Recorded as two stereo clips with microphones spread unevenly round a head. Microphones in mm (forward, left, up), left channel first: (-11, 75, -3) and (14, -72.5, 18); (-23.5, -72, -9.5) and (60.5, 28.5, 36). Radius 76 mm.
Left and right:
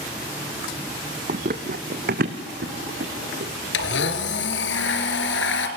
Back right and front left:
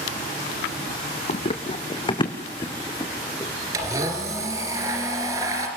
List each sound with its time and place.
1.3 s running footsteps: 85° right, 1.4 m; by 3.5 s 60° right, 3.5 m
3.7 s a blender: 115° left, 3 m